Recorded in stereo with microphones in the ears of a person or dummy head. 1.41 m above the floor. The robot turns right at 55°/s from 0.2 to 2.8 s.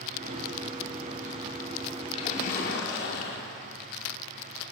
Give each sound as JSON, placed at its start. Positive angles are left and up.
{"t": 2.1, "sound": "a splash", "azimuth_deg": 30, "distance_m": 5.0}